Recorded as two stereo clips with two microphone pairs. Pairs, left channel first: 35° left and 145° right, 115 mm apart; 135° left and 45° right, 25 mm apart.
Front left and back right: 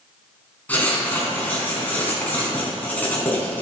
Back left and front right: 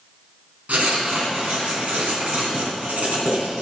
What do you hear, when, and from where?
0.7 s writing: 40° right, 4 m